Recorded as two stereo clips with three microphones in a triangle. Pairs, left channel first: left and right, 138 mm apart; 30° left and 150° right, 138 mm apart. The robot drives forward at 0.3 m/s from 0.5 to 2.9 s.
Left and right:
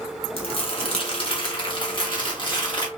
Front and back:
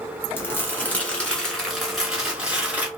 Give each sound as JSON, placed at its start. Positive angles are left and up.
{"t": 0.4, "sound": "crumpling", "azimuth_deg": 95, "distance_m": 1.2}